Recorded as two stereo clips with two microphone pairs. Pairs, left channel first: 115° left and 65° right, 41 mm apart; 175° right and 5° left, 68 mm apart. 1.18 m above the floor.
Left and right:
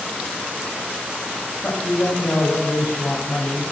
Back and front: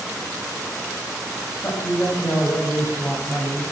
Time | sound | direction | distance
1.6 | a man speaking | 140° left | 8 m